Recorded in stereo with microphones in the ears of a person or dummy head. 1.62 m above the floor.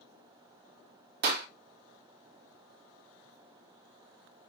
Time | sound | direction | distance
1.2 | a clap | 55° right (ahead or behind) | 2 m